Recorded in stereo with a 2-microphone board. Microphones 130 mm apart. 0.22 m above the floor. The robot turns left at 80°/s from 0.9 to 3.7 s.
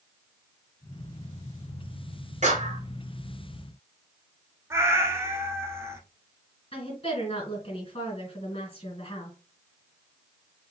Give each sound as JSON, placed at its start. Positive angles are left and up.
{"t": 2.4, "sound": "a clap", "azimuth_deg": -85, "distance_m": 2.5}
{"t": 4.7, "sound": "a cat meowing", "side_deg": -20, "distance_m": 1.2}
{"t": 6.7, "sound": "a woman speaking", "side_deg": 45, "distance_m": 3.0}